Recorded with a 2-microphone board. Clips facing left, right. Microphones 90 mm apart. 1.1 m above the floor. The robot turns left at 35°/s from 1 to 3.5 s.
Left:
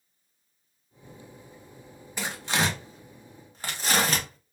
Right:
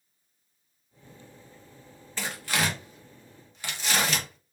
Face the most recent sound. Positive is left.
turn(degrees=40)  # may be behind; listen again after turning